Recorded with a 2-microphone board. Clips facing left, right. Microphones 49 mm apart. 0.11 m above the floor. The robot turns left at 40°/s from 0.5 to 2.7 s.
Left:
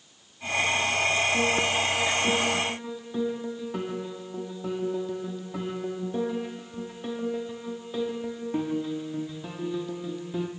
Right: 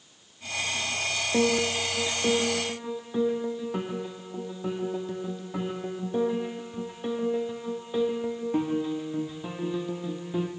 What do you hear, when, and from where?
1.3 s a piano: 120° right, 0.8 m; by 10.5 s 170° right, 0.8 m